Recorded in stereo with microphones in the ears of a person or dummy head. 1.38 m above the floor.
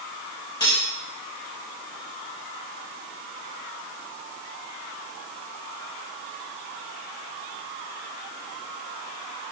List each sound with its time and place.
0.6 s cutlery clinking: 30° left (ahead or behind), 2 m